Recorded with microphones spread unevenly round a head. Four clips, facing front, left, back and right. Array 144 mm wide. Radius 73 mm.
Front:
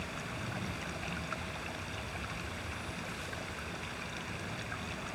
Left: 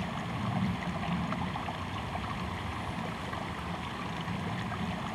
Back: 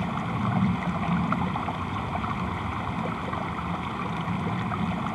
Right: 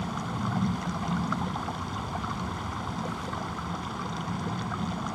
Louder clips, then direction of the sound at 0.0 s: Right 4 dB, back 13 dB; 165° right.